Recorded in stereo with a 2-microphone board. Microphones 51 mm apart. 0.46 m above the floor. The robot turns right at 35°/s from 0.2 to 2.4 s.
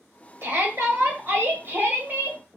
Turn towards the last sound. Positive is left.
turn(degrees=-35)